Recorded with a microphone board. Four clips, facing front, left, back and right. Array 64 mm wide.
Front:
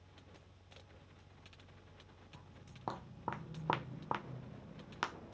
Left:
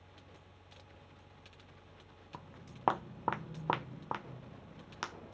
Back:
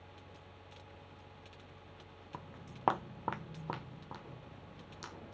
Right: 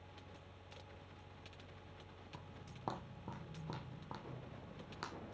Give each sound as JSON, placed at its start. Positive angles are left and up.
{"t": 2.3, "sound": "footsteps", "azimuth_deg": 150, "distance_m": 0.9}